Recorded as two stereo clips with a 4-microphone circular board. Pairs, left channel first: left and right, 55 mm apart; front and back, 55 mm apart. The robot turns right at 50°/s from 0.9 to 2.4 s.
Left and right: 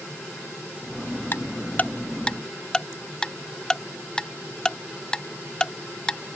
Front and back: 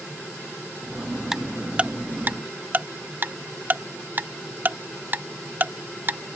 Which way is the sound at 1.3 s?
100° left.